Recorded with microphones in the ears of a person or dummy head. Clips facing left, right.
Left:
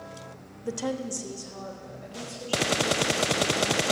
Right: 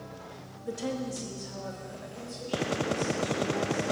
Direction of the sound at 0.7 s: 65° left (ahead or behind).